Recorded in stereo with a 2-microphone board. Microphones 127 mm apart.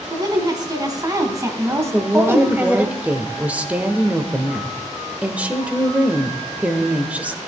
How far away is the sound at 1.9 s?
About 1.0 m.